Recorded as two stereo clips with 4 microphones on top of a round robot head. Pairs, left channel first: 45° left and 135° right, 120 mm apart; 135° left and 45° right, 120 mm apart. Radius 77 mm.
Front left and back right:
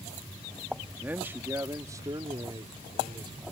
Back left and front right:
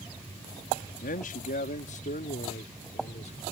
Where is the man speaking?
145° left; by 3.4 s 170° left.